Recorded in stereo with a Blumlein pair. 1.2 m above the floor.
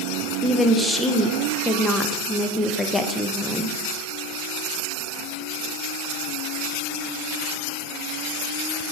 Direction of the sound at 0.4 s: 5° left.